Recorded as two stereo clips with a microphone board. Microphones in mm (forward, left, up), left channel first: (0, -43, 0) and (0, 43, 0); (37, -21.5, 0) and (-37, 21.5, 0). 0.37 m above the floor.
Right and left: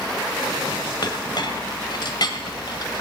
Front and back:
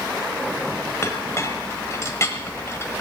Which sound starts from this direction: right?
A clink, at 1.0 s.